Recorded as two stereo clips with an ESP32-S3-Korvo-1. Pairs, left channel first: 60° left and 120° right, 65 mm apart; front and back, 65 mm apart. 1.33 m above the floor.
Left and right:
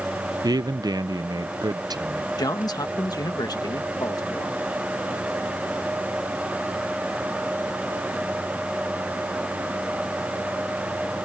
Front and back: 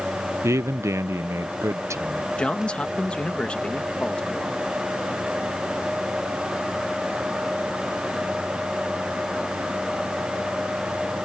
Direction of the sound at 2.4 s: 75° left.